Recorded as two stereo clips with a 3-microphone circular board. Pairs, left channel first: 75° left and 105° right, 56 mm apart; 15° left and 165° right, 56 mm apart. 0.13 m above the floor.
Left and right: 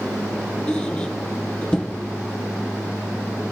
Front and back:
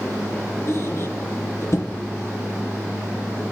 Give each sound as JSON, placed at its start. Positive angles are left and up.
{"t": 0.7, "sound": "a squeak", "azimuth_deg": 5, "distance_m": 1.6}